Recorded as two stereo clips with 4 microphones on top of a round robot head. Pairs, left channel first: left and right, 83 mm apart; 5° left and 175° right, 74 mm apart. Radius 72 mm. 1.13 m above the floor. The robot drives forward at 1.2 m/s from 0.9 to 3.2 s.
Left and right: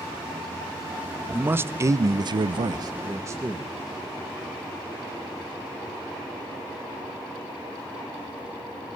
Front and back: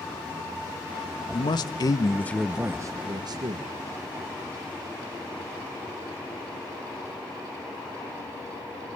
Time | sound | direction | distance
1.3 | a man speaking | 20° right | 1.5 m